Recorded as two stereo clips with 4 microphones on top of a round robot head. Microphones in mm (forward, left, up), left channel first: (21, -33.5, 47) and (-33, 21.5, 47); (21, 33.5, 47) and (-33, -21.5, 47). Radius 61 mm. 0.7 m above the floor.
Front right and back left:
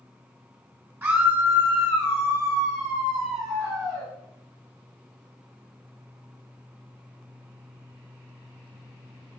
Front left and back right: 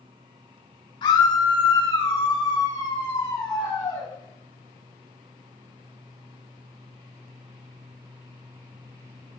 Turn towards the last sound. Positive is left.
turn(degrees=85)